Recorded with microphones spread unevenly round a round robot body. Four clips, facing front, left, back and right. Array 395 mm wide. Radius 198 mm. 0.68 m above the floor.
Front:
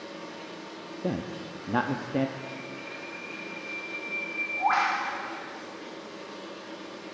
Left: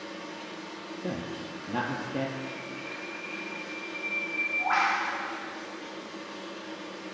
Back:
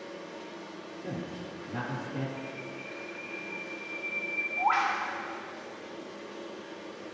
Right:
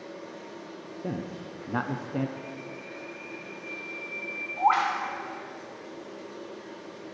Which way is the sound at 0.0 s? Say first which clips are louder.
Left 1 dB, front 1 dB; 10° left.